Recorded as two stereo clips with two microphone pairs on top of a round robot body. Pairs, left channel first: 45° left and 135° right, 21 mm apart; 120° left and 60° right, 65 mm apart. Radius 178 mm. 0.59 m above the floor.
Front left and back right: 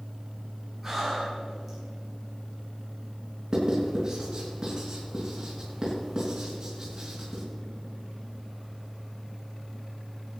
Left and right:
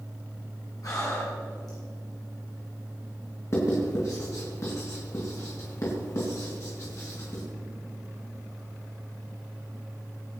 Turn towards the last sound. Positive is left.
turn(degrees=160)